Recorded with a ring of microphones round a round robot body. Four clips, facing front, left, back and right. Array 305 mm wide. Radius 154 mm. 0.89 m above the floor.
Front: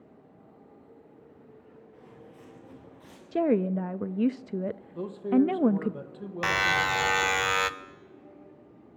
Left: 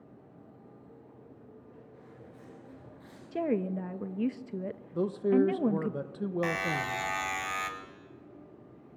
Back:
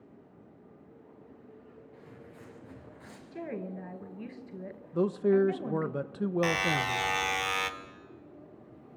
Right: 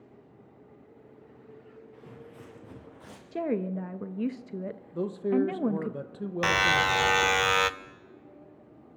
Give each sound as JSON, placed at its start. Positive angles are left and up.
{"t": 1.9, "sound": "footsteps", "azimuth_deg": -110, "distance_m": 5.5}
{"t": 3.3, "sound": "a woman speaking", "azimuth_deg": 5, "distance_m": 0.6}
{"t": 4.9, "sound": "a man speaking", "azimuth_deg": 175, "distance_m": 1.1}
{"t": 6.4, "sound": "a buzzer", "azimuth_deg": -65, "distance_m": 1.0}